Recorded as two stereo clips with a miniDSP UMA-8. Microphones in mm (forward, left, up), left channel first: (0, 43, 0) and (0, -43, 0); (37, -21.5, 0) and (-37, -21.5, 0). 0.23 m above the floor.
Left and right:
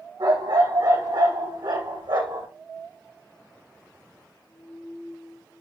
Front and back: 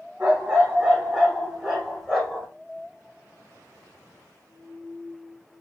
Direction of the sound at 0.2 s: 105° right.